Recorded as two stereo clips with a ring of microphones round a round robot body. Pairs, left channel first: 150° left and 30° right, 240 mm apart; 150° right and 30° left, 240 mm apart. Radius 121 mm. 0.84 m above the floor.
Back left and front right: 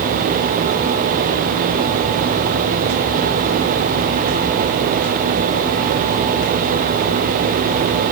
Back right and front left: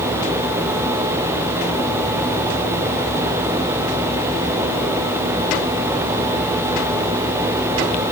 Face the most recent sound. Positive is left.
No sound to turn to.